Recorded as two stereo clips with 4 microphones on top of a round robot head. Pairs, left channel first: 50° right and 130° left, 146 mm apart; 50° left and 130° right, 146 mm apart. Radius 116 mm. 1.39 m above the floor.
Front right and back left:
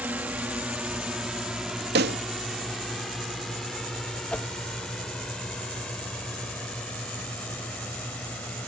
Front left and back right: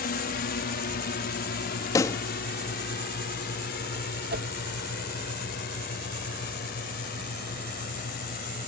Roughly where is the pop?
Behind left.